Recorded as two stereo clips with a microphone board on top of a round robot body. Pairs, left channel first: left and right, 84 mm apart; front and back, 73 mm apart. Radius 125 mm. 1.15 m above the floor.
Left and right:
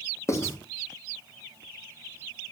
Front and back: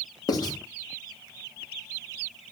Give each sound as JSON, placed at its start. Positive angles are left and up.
{"t": 0.3, "sound": "writing", "azimuth_deg": 35, "distance_m": 2.5}